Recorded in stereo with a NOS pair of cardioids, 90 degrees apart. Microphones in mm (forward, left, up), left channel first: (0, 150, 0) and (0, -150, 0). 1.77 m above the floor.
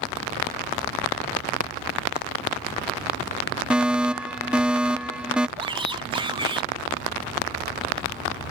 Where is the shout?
15° right.